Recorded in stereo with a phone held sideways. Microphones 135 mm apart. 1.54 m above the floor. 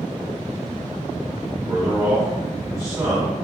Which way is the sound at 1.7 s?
25° right (ahead or behind).